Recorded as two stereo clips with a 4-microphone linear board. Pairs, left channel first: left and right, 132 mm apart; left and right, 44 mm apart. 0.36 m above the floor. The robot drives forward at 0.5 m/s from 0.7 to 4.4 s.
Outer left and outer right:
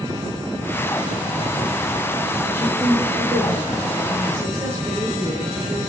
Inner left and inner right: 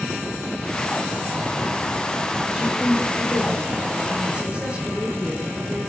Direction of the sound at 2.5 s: 20° right (ahead or behind).